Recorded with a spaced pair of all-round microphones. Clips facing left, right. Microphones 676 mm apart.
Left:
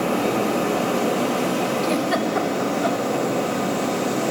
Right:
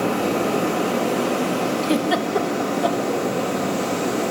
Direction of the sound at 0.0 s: 5° left (ahead or behind).